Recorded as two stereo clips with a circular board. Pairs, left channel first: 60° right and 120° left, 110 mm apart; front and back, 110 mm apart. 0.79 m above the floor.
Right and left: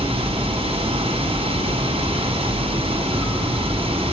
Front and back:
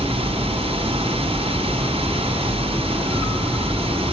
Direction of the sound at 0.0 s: 150° left.